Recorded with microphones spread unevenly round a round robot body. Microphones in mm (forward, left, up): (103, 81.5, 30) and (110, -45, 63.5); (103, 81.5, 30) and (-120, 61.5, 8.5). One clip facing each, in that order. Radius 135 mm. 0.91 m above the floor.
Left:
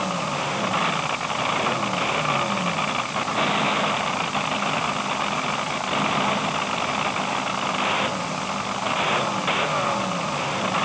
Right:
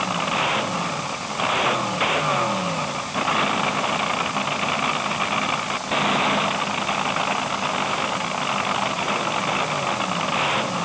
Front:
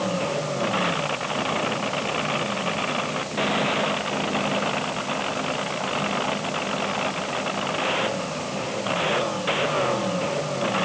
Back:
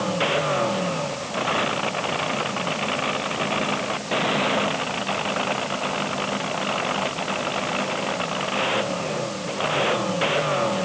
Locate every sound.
Only background noise.